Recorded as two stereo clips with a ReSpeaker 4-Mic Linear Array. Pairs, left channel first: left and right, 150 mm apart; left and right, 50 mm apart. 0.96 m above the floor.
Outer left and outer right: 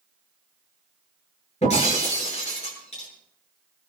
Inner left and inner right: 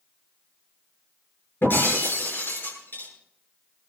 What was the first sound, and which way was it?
Breaking glass, 45° left (ahead or behind).